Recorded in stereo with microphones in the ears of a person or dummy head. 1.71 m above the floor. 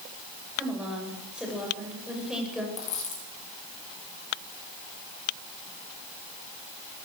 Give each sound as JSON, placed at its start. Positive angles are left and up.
{"t": 0.6, "sound": "a woman speaking", "side_deg": -5, "distance_m": 8.5}
{"t": 2.8, "sound": "a dropped coin", "side_deg": 35, "distance_m": 7.0}